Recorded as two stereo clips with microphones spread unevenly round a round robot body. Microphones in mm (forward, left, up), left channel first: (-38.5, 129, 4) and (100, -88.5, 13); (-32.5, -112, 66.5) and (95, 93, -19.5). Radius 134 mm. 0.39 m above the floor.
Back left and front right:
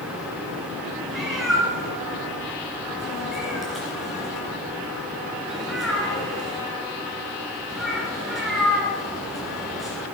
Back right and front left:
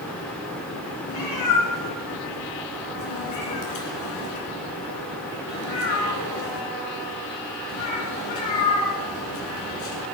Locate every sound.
1.1 s a cat meowing: 145° right, 2.5 m